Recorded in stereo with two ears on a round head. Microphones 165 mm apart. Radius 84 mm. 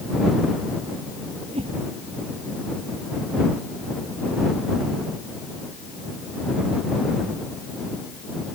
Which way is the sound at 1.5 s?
30° right (ahead or behind).